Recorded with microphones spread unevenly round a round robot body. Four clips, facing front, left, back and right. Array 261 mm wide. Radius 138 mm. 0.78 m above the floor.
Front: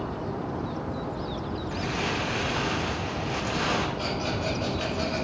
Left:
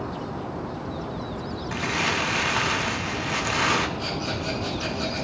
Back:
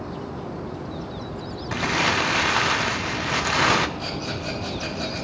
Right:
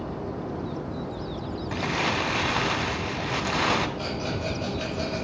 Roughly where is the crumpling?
Behind.